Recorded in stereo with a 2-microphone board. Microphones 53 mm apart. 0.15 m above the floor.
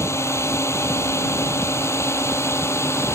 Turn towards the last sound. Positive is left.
turn(degrees=55)  # may be behind; listen again after turning